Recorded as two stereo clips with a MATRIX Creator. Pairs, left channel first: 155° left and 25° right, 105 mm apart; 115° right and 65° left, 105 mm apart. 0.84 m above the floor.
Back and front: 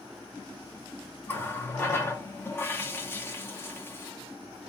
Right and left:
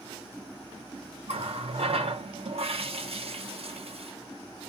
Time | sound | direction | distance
1.3 | a running tap | 90° left | 0.6 m